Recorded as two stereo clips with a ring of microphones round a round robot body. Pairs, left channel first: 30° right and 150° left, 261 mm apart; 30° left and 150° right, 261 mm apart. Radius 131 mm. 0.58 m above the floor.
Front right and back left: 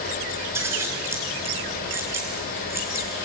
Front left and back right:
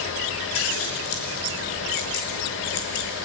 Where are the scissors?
70° left, 6 m.